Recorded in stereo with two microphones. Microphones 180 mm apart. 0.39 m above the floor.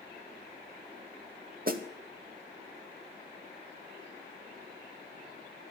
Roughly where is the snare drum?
Right.